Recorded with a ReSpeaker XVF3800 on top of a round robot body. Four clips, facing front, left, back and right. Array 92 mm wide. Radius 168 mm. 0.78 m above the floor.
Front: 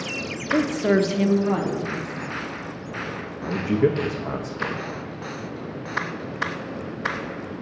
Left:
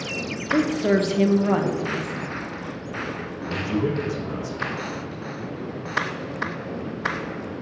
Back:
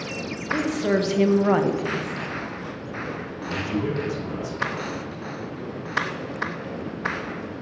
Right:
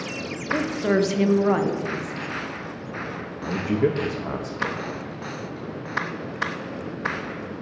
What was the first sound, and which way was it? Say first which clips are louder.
A woman speaking: left 2 dB, front 3 dB; straight ahead.